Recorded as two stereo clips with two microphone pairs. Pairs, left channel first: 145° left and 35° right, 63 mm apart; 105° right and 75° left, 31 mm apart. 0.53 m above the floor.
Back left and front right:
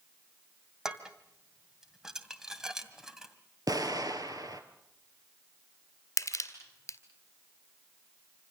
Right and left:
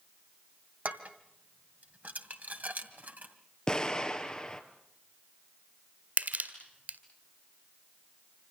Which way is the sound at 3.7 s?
40° right.